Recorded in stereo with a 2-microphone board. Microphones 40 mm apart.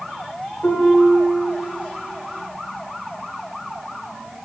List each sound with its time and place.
0.6 s a piano: 50° left (ahead or behind), 2.5 m